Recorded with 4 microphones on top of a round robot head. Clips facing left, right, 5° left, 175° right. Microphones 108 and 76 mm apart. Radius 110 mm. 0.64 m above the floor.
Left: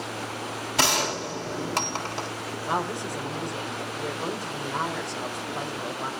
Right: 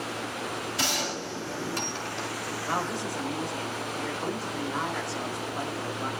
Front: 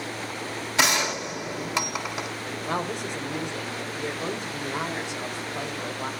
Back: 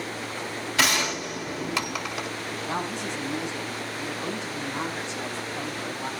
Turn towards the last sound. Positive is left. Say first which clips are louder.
# left 3 dB, front 2 dB
turn(degrees=25)